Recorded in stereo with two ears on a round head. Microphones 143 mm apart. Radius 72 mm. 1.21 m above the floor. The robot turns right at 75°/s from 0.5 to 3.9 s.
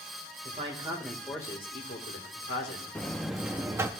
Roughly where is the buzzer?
Centre.